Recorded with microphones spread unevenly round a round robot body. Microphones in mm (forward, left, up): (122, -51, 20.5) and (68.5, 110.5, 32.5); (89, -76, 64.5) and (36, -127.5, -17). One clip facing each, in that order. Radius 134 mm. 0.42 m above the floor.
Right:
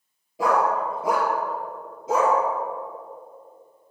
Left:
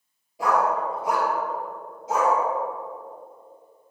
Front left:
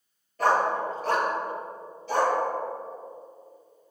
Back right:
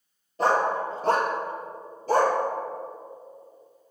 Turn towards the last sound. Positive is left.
turn(degrees=-105)